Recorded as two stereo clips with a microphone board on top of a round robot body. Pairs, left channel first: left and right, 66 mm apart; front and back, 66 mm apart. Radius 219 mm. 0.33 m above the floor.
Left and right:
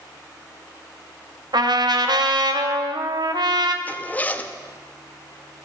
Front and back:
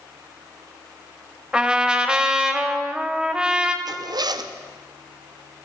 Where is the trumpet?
105° right, 1.5 m.